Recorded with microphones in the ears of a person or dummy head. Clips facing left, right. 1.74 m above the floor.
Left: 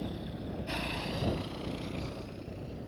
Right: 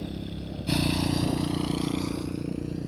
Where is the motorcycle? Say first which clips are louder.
Right 3 dB; 30° right (ahead or behind); by 2.9 s 75° right (ahead or behind).